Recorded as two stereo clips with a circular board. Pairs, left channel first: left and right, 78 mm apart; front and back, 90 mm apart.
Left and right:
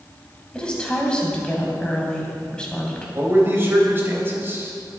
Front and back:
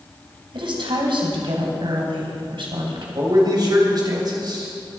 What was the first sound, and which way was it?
A woman speaking, 170° left.